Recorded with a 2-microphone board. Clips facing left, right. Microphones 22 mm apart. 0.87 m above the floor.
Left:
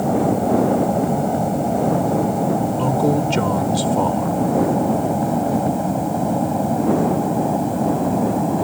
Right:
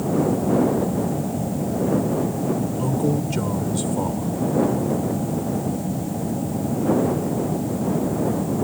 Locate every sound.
0.0 s an aircraft: 65° left (ahead or behind); by 8.6 s 75° left (ahead or behind)
2.8 s a man speaking: 35° left (ahead or behind)